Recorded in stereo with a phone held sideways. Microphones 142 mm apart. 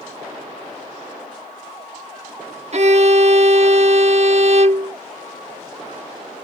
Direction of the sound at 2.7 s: 50° right (ahead or behind).